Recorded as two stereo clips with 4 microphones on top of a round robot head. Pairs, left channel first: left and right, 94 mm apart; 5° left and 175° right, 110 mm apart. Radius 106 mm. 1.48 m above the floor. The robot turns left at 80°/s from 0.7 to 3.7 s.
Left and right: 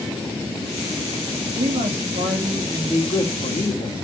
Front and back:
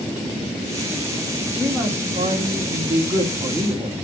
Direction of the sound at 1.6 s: 75° right.